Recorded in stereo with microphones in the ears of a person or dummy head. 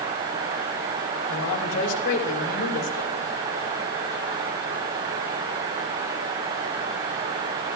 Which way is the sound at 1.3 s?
75° left (ahead or behind).